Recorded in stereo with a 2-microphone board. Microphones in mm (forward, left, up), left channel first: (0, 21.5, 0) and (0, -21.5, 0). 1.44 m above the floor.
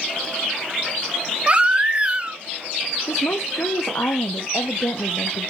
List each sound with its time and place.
1.5 s a baby crying: 30° right (ahead or behind), 0.6 m
3.1 s a woman speaking: 80° left, 0.8 m